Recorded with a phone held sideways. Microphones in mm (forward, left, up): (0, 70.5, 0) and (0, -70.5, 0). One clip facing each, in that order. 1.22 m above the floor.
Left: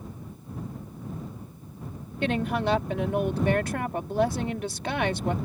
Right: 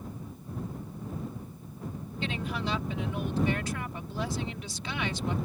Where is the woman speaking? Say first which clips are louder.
Left 8 dB; 60° left (ahead or behind).